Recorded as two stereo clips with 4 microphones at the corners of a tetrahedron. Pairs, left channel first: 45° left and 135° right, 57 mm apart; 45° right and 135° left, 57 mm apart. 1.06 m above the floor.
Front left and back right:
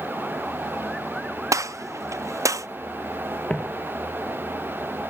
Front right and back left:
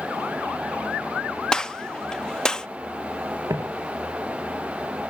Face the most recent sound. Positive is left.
turn(degrees=115)